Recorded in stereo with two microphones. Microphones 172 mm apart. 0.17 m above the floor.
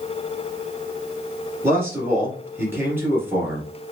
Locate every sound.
1.6 s a man speaking: 15° right (ahead or behind), 2 m